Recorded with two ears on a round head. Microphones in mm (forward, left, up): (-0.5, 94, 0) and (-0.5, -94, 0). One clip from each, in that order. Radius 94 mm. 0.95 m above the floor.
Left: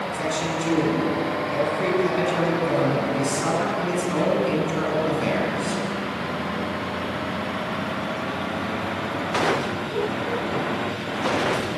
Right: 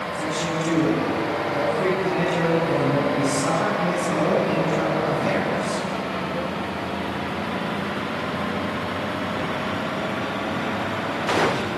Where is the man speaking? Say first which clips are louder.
Even; 25° left (ahead or behind), 9 m.